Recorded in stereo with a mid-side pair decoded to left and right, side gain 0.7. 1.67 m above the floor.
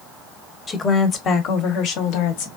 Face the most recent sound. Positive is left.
turn(degrees=75)